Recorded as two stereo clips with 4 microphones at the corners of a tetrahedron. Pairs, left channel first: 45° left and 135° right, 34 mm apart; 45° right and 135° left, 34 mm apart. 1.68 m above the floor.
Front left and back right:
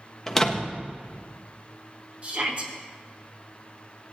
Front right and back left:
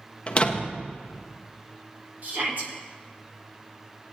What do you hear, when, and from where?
0.3 s a door slam: 25° right, 1.1 m
2.2 s a shout: 170° left, 2.5 m